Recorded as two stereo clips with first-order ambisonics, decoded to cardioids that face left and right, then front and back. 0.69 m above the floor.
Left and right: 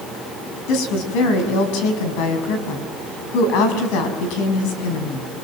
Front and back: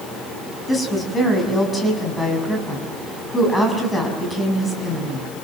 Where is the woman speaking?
80° left, 6 m.